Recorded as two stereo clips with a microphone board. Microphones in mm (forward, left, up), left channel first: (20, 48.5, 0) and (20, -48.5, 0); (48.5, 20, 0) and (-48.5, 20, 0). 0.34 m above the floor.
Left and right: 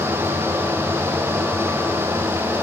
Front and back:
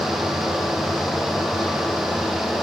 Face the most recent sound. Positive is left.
No sound to turn to.